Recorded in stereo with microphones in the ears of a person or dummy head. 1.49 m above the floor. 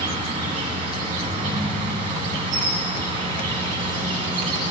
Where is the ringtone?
10° right (ahead or behind), 3.5 m.